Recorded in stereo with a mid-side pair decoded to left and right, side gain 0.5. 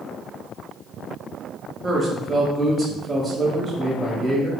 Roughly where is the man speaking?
Ahead right.